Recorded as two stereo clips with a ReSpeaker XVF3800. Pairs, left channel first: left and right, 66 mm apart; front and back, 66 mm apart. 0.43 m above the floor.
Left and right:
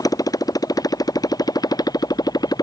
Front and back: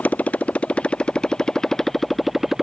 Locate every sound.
0.0 s a motorcycle: 70° left; by 2.6 s 95° left